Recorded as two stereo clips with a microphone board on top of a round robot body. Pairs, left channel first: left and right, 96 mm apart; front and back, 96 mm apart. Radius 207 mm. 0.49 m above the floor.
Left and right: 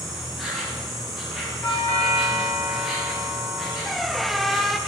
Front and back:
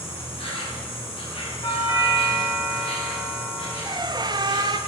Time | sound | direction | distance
0.0 | an insect | straight ahead | 2.5 m
1.6 | a doorbell | 25° left | 4 m
3.9 | a squeak | straight behind | 0.8 m